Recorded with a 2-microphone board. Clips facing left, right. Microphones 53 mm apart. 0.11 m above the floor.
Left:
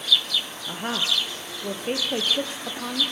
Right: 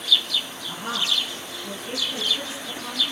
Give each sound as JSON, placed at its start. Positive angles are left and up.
{"t": 0.7, "sound": "a woman speaking", "side_deg": 35, "distance_m": 2.5}